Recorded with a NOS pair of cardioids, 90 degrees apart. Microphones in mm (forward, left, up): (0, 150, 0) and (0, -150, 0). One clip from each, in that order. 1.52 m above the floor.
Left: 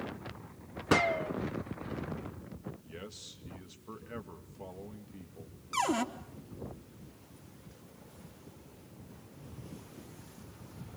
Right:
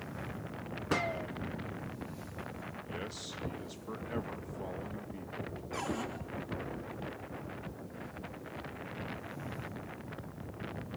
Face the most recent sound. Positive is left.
turn(degrees=60)